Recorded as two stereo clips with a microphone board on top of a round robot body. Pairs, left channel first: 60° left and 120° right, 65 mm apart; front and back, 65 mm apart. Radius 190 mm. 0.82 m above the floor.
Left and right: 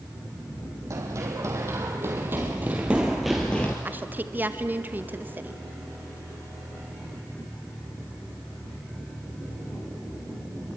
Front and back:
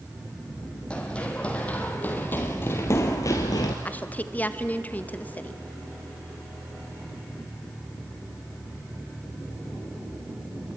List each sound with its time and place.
0.9 s running footsteps: 75° right, 2 m; by 3.8 s 5° right, 1.0 m
3.9 s a woman speaking: 60° right, 1.7 m